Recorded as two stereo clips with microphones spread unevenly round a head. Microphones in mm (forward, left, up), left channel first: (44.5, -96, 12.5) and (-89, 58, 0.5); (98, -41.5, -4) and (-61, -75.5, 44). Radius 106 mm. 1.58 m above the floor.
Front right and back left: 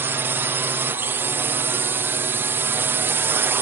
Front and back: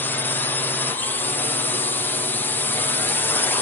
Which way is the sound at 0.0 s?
60° left.